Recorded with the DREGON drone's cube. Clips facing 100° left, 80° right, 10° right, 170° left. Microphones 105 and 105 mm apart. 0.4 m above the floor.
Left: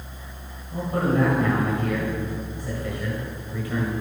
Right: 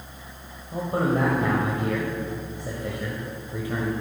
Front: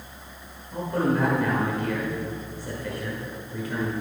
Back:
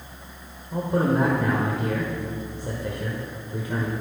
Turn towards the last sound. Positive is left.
turn(degrees=-135)